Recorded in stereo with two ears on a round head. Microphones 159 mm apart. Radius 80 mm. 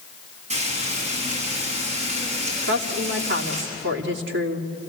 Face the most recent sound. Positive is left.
turn(degrees=-75)  # may be behind; listen again after turning